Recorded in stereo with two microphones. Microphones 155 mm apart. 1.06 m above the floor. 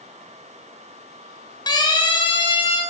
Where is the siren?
25° left (ahead or behind), 7.5 m; by 2.8 s 35° left (ahead or behind), 8.5 m.